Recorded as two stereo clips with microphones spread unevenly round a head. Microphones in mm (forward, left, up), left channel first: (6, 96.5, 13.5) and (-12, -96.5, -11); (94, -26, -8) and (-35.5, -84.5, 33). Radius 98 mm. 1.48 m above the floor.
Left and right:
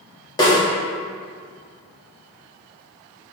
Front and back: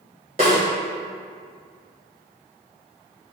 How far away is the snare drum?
About 1.8 m.